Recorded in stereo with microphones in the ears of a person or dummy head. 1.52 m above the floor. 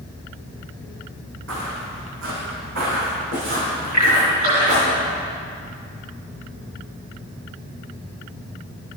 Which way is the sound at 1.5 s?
70° right (ahead or behind).